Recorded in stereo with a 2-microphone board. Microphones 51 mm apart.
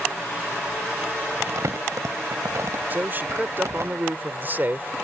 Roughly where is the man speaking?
Right.